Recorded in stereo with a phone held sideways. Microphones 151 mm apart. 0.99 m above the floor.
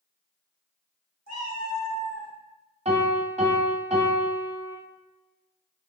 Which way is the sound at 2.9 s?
45° right (ahead or behind).